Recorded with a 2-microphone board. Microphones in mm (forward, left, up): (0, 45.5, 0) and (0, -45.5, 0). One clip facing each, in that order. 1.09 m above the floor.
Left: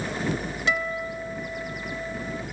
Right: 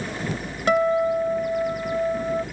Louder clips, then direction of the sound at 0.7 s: Right 11 dB; 50° right (ahead or behind).